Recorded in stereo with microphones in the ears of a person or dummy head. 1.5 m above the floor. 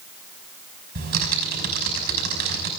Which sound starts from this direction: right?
Typing on a keyboard, at 0.9 s.